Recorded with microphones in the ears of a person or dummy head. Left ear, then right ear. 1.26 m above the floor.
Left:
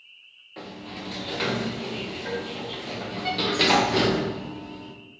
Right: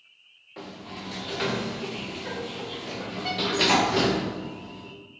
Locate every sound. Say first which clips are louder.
0.6 s a sliding door: left 1 dB; centre (ahead or behind), 0.5 m